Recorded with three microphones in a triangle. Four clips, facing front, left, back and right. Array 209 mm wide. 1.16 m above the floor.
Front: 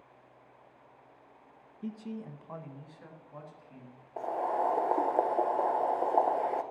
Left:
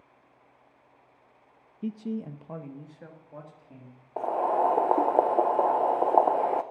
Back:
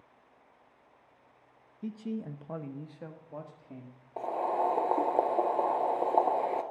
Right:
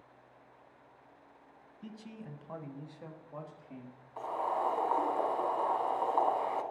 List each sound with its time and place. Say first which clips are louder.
1.8 s a man speaking: left 14 dB, back 3 dB; 95° left, 0.7 m; by 4.0 s 175° left, 2.5 m
4.2 s boiling: left 8 dB, back 1 dB; 100° left, 0.7 m